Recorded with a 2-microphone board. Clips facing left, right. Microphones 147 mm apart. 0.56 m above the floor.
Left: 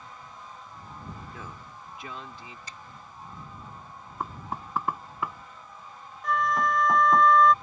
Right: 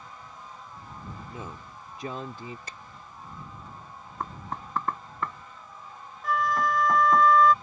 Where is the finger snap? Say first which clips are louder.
Right 1 dB; 55° right (ahead or behind).